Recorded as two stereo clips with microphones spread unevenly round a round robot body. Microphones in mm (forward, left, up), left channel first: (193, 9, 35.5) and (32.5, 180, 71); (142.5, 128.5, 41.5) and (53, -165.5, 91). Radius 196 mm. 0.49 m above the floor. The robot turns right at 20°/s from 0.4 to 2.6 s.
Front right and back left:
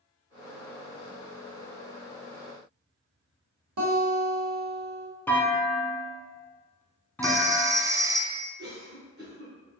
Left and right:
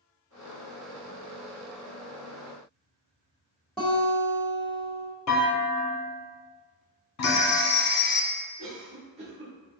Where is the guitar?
160° left, 1.1 m.